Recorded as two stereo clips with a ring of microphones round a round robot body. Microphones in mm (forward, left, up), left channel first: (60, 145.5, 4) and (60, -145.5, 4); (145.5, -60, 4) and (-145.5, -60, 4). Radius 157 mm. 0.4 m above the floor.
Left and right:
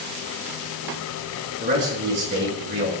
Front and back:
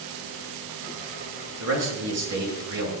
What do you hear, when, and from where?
1.6 s a man speaking: 150° right, 6 m